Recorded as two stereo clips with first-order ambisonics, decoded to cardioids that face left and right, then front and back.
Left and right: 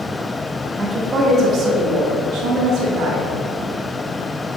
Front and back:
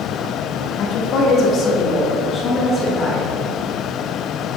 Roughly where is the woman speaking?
Ahead.